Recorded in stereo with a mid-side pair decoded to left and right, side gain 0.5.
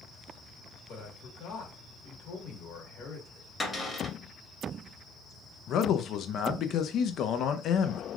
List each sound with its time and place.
0.9 s a man speaking: 70° left, 1.7 m
3.6 s a cupboard door: 20° left, 1.5 m
5.7 s a man speaking: 60° left, 0.5 m